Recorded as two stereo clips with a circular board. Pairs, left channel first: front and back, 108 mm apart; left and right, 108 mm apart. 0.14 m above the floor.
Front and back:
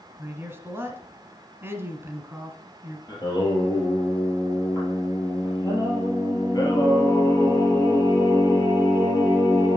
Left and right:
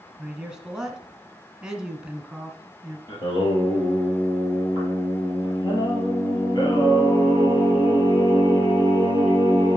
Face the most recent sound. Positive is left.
turn(degrees=50)